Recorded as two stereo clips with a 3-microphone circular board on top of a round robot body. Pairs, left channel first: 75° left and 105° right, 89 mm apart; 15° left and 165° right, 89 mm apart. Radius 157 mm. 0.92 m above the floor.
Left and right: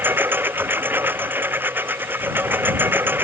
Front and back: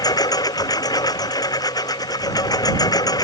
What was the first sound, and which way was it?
A lawn mower, 35° right.